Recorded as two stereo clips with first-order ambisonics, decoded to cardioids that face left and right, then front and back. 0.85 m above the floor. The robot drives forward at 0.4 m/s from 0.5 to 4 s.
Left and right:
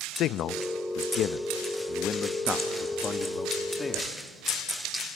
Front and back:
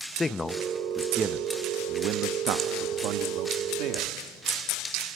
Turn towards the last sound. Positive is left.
turn(degrees=165)